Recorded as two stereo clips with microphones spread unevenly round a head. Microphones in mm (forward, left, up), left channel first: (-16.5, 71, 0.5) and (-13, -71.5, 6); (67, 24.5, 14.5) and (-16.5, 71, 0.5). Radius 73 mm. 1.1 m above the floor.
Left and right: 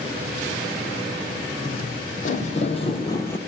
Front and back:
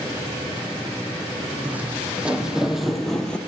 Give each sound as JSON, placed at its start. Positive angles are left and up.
{"t": 1.6, "sound": "footsteps", "azimuth_deg": 75, "distance_m": 2.5}